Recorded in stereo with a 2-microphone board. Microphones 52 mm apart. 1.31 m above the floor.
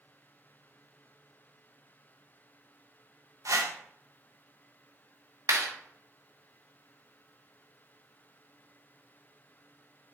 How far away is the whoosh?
About 1.0 m.